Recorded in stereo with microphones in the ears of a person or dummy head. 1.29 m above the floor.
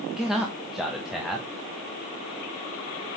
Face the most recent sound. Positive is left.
turn(degrees=-5)  # may be behind; listen again after turning